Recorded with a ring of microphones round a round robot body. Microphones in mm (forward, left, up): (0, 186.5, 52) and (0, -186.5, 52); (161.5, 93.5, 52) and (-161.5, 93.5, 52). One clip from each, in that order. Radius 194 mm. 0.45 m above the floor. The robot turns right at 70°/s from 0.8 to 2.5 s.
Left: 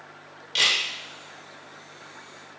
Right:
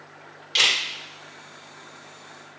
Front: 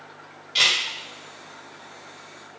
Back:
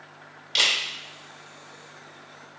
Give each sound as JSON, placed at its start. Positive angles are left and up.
{"t": 0.6, "sound": "a camera shutter", "azimuth_deg": -155, "distance_m": 2.5}